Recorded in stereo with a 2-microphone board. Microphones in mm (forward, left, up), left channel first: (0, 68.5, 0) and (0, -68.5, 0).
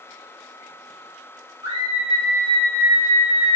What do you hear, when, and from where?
1.6 s a scream: 35° right (ahead or behind), 2.0 m; by 3.6 s 30° right (ahead or behind), 1.4 m